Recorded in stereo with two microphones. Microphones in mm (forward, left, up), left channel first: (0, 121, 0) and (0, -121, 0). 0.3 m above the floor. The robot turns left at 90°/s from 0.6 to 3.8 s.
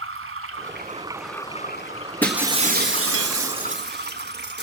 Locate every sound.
0.0 s running water: 120° right, 0.8 m; by 4.6 s 45° right, 0.8 m
2.2 s breaking glass: 10° left, 1.4 m; by 4.6 s 135° right, 1.4 m